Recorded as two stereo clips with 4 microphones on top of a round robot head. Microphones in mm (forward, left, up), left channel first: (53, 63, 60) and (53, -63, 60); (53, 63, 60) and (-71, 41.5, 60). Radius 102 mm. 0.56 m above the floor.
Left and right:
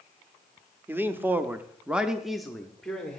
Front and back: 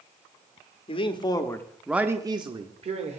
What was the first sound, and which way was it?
A man speaking, 20° right.